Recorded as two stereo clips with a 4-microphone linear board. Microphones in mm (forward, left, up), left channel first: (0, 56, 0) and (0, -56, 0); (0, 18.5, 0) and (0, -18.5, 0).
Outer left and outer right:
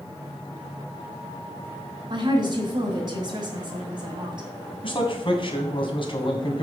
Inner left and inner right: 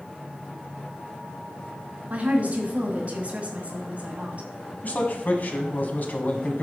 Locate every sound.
2.1 s a woman speaking: 40° right (ahead or behind), 2 m
4.8 s a man speaking: 50° left (ahead or behind), 1.7 m